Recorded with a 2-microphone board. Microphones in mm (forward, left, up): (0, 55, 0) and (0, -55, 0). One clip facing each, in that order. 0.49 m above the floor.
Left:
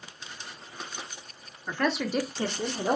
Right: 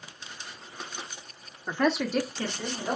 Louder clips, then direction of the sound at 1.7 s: Right 2 dB; 20° right (ahead or behind).